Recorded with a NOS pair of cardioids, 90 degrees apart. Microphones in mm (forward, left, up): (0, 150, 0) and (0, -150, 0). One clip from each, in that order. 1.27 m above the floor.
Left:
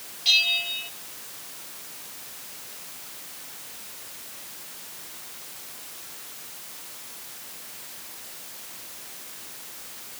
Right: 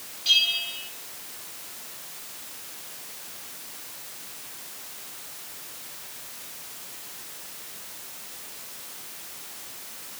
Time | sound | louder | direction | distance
0.2 | a bell | left 1 dB | 30° left | 2.5 m